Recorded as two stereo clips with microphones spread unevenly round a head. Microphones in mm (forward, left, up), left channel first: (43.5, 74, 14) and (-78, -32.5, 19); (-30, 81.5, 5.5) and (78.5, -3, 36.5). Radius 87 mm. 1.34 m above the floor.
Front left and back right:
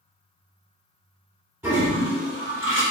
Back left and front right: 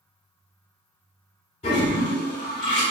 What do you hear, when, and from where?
1.6 s a toilet flushing: 170° left, 1.0 m